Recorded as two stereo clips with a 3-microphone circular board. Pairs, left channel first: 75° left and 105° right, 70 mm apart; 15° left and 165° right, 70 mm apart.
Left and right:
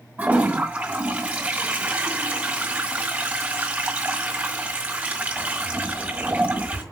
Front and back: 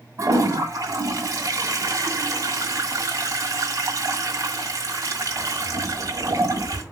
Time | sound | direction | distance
0.2 | a toilet flushing | 175° right | 1.8 m